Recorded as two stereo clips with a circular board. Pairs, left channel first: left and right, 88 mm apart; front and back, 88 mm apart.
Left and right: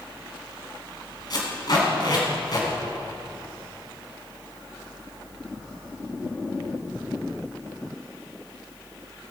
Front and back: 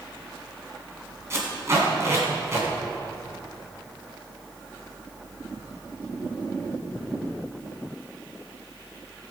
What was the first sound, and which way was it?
Tape being pulled, 125° left.